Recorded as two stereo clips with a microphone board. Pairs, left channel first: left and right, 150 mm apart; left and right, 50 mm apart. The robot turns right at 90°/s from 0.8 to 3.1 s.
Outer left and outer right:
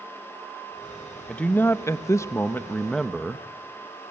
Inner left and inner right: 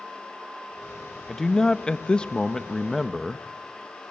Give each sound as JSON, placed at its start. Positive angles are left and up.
{"t": 1.3, "sound": "a man speaking", "side_deg": 5, "distance_m": 0.8}